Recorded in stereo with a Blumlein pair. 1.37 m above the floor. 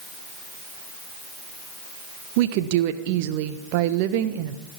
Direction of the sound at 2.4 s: 45° right.